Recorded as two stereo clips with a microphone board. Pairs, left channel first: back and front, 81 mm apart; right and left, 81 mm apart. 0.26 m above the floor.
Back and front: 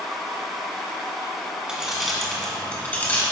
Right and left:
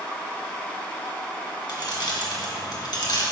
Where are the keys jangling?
80° right, 1.8 m; by 3.2 s 115° right, 2 m.